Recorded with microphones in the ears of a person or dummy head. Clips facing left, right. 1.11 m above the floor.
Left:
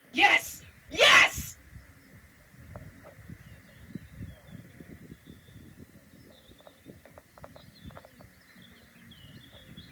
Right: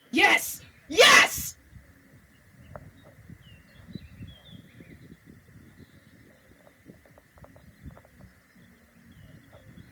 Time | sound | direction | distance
0.1 | a shout | 70° right (ahead or behind) | 0.8 m